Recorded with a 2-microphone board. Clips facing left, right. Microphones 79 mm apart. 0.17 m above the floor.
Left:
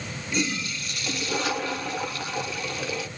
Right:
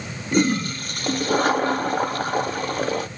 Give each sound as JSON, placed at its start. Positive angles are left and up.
{"t": 0.3, "sound": "a toilet flushing", "side_deg": -45, "distance_m": 0.6}